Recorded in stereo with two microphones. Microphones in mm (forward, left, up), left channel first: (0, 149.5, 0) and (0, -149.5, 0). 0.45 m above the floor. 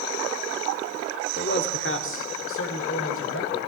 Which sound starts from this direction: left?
A man speaking, at 1.4 s.